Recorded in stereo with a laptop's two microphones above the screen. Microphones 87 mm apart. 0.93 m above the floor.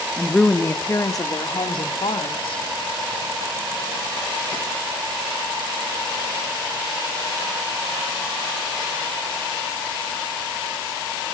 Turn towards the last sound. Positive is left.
turn(degrees=70)  # may be behind; listen again after turning